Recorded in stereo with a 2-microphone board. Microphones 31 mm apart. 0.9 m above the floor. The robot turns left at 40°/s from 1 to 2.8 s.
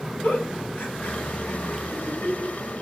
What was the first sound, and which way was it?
A giggle, 65° left (ahead or behind).